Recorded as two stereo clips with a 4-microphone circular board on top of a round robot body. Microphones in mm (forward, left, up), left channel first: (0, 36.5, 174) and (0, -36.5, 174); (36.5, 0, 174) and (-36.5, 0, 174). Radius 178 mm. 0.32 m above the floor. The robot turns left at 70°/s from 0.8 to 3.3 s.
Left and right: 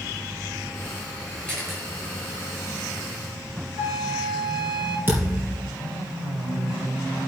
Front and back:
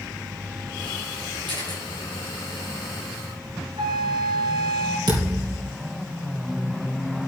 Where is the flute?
155° right, 2.5 m.